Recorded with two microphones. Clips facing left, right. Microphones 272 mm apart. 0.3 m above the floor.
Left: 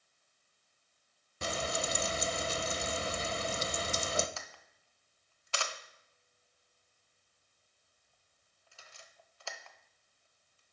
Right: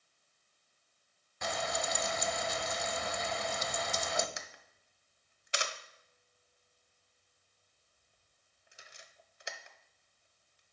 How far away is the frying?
About 0.6 m.